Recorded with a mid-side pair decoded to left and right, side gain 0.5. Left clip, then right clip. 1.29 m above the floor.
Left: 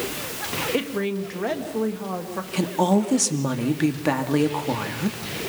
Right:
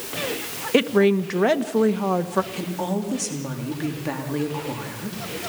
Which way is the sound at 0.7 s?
45° right.